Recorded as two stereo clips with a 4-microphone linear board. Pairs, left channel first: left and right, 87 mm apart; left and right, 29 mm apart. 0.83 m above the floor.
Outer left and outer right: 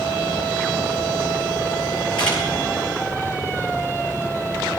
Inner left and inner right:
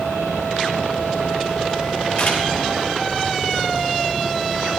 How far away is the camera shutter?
About 5 m.